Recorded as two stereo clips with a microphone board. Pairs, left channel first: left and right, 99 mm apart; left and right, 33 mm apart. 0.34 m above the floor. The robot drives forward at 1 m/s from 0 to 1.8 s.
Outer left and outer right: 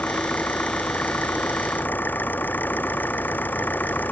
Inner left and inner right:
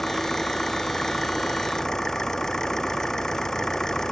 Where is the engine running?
15° left (ahead or behind); by 4.1 s 20° left (ahead or behind).